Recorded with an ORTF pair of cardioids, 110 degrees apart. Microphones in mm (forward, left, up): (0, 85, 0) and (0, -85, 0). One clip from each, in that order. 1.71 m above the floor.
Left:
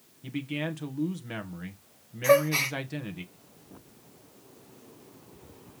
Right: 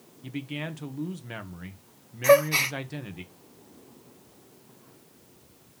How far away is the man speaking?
About 1.7 m.